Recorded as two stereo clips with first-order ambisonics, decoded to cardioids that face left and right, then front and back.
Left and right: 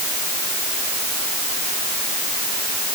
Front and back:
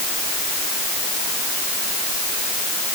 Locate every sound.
Only background noise.